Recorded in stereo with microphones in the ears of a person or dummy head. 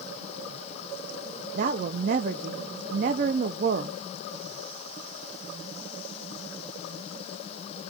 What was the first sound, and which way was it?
A woman speaking, 50° right (ahead or behind).